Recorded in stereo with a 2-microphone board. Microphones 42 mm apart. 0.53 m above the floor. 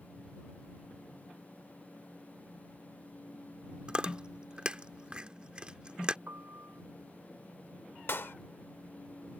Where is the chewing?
25° right (ahead or behind).